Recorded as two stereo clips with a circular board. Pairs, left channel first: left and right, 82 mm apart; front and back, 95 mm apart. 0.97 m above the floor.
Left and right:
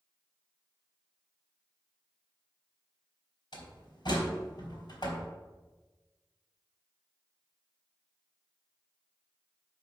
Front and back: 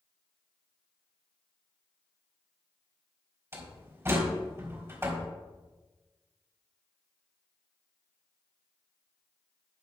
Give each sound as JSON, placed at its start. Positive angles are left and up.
{"t": 3.5, "sound": "a door slam", "azimuth_deg": 120, "distance_m": 3.0}